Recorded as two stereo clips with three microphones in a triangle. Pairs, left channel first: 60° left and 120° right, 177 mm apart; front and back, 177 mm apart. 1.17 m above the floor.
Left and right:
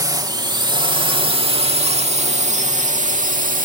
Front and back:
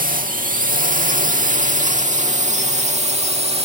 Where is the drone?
175° left; by 3.7 s 135° right.